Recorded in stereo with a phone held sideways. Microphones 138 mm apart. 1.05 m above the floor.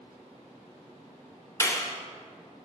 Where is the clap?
20° left (ahead or behind), 0.9 m.